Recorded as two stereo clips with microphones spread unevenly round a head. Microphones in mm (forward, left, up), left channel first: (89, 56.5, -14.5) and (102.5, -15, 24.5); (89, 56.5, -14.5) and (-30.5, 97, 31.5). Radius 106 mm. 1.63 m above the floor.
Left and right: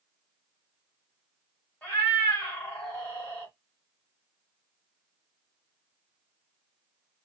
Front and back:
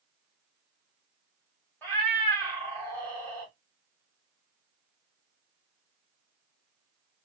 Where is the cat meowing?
135° right, 1.5 m.